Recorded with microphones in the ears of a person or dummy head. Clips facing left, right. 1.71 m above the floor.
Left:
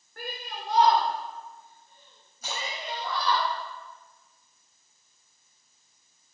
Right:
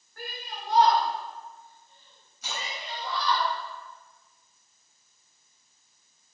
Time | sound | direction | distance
0.2 | a shout | 50° left (ahead or behind) | 2 m
2.4 | a splash | 35° left (ahead or behind) | 4.5 m